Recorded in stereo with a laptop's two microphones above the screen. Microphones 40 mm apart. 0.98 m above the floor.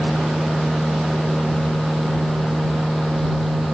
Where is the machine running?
5° left (ahead or behind).